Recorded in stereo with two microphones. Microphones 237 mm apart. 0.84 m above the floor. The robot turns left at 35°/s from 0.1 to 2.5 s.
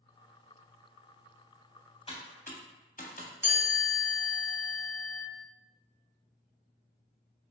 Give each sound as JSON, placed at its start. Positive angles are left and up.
{"t": 2.1, "sound": "typing on a keyboard", "side_deg": 25, "distance_m": 0.5}
{"t": 3.4, "sound": "a chime", "side_deg": -10, "distance_m": 0.9}